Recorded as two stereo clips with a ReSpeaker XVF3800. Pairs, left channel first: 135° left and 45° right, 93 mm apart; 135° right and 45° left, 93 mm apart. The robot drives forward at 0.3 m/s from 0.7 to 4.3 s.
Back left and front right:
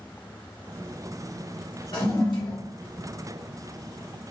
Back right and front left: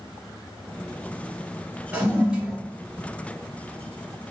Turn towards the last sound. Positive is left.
turn(degrees=140)